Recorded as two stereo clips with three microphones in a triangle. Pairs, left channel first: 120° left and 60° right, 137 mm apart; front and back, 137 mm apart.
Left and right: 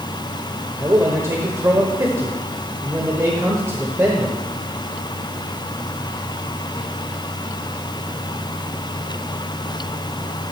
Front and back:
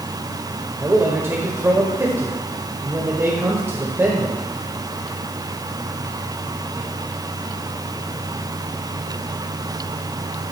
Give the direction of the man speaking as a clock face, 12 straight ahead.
4 o'clock.